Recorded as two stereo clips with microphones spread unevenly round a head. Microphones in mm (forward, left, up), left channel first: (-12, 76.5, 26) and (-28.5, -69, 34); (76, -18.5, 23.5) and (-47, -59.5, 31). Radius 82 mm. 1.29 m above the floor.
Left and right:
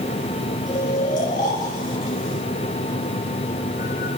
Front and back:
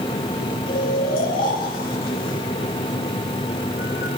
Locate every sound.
0.7 s snoring: 40° left, 4.5 m